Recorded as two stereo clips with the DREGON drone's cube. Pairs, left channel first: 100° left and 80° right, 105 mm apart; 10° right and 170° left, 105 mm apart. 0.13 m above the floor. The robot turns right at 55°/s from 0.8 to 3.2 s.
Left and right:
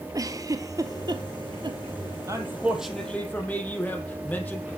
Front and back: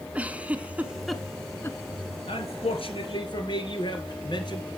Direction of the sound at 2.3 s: 25° right.